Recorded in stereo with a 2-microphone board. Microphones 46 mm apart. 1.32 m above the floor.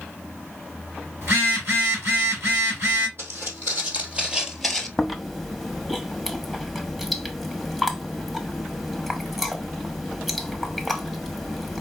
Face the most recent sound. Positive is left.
turn(degrees=-5)  # may be behind; listen again after turning